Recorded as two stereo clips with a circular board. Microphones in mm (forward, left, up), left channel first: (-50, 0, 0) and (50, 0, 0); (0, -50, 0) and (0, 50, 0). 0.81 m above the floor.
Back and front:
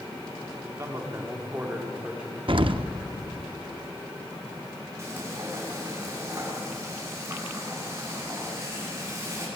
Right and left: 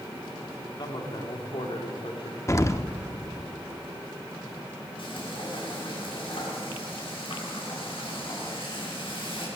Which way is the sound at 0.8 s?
55° right.